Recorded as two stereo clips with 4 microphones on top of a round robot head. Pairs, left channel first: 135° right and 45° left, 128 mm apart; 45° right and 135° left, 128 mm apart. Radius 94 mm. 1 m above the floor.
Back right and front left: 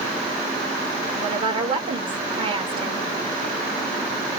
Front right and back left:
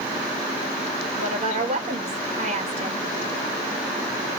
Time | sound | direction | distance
1.2 | a woman speaking | 95° left | 1.8 m